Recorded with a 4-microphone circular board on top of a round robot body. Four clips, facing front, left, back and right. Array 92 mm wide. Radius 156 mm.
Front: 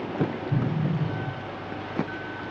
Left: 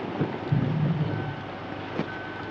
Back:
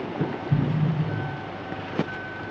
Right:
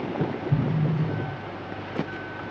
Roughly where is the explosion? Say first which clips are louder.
Right 1 dB, back 2 dB; behind.